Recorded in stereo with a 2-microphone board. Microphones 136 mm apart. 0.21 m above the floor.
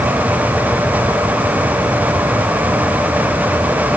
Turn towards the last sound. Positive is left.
No sound to turn to.